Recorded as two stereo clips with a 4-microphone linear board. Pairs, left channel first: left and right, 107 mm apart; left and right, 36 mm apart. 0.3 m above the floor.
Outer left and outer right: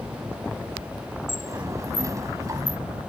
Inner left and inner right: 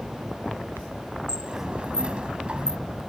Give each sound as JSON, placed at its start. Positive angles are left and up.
{"t": 1.3, "sound": "a sliding door", "side_deg": -30}